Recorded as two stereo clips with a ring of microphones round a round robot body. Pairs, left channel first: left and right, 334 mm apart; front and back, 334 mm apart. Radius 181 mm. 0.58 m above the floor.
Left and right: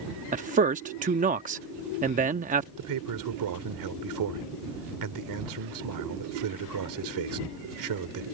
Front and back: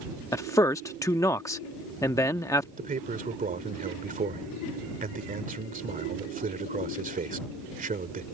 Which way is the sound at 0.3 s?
65° right.